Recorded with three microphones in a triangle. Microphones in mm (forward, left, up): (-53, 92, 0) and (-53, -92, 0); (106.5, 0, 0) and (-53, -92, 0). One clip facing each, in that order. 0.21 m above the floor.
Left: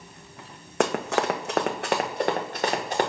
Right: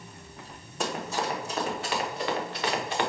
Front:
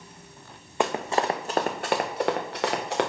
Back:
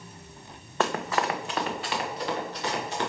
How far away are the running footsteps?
About 0.9 m.